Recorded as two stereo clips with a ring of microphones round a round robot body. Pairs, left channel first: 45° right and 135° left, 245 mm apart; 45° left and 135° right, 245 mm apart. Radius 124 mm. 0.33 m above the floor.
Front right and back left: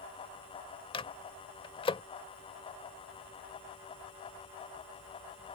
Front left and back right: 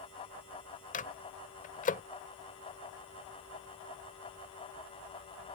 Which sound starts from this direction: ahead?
A microwave, at 0.9 s.